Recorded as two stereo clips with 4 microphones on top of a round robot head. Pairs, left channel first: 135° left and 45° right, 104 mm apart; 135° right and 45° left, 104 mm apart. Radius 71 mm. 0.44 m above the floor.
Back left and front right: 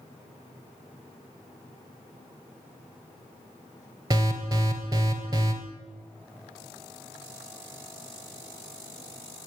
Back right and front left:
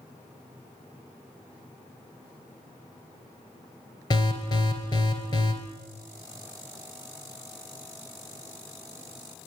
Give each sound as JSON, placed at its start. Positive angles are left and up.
{"t": 4.1, "sound": "an alarm", "azimuth_deg": -100, "distance_m": 3.0}